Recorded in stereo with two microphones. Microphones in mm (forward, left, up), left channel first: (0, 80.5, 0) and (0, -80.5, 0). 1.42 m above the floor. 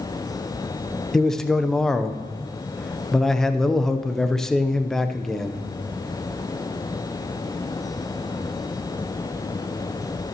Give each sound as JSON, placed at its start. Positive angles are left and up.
{"t": 1.1, "sound": "a man speaking", "side_deg": 5, "distance_m": 0.7}